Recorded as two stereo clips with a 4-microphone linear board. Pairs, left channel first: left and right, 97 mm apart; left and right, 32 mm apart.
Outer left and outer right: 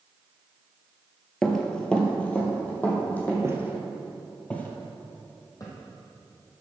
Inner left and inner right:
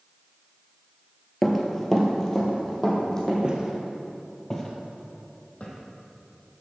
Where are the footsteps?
30° right (ahead or behind), 1.6 m; by 5.7 s 40° left (ahead or behind), 2.5 m.